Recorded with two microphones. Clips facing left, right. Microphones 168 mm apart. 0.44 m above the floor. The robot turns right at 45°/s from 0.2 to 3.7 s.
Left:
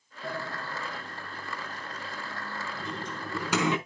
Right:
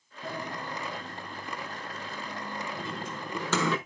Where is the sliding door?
45° right (ahead or behind), 4.5 m; by 3.8 s 20° left (ahead or behind), 4.5 m.